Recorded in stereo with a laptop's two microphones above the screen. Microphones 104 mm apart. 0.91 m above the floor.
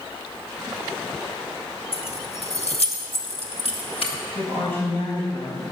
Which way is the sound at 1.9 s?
65° left (ahead or behind).